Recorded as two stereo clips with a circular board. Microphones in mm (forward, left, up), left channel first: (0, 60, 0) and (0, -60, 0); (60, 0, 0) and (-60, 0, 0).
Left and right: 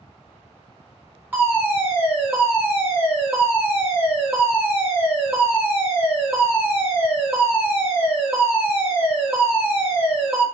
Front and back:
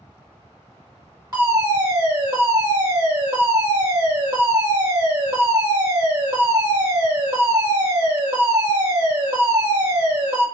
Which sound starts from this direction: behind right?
A fire alarm, at 1.3 s.